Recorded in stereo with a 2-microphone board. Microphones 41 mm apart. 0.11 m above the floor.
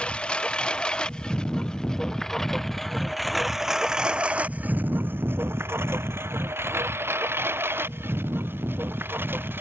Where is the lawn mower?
30° left (ahead or behind); by 9.6 s 60° right (ahead or behind).